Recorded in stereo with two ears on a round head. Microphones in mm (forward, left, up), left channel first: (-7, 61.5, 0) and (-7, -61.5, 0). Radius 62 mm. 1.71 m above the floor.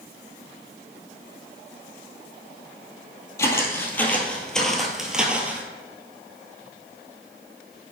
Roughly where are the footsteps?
Left.